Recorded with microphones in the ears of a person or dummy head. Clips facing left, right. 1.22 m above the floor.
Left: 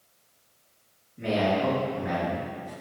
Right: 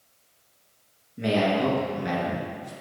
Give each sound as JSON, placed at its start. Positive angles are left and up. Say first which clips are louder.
{"t": 1.2, "sound": "a man speaking", "louder": "right 2 dB", "side_deg": -70, "distance_m": 1.4}